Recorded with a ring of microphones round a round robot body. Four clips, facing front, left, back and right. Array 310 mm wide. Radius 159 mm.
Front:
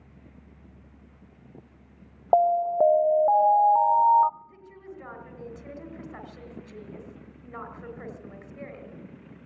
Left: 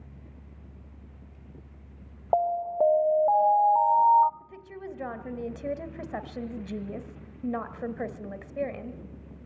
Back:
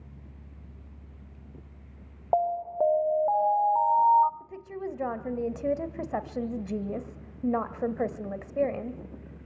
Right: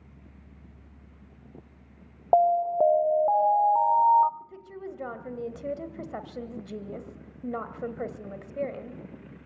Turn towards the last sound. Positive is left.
turn(degrees=165)